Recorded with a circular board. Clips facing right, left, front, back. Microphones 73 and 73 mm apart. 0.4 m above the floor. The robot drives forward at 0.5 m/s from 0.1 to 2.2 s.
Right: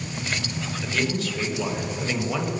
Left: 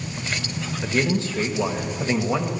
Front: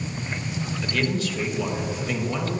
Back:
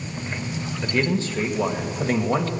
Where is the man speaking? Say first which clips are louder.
Left 4 dB, back 3 dB; 125° left, 1.1 m; by 2.5 s 150° left, 1.5 m.